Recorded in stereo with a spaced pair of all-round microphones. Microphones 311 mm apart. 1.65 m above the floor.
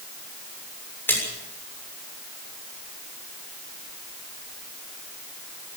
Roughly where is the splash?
Centre.